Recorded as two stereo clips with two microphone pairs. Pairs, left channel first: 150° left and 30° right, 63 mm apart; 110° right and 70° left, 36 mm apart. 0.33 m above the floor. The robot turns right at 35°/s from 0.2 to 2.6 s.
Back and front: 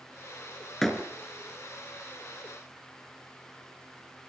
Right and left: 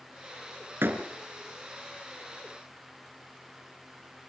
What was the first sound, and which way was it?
A door slam, 65° left.